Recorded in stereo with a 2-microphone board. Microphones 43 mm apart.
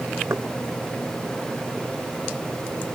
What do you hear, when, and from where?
0.3 s knocking: 85° right